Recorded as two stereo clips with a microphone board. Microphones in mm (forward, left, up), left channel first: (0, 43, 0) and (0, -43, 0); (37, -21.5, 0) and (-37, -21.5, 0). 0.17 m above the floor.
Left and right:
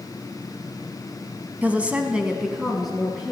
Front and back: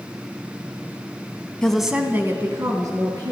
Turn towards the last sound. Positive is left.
turn(degrees=180)